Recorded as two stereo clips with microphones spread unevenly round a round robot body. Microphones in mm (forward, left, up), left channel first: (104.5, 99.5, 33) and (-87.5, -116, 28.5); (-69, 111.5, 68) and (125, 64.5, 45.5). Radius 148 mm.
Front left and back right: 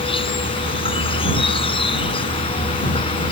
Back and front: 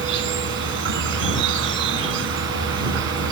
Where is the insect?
25° right.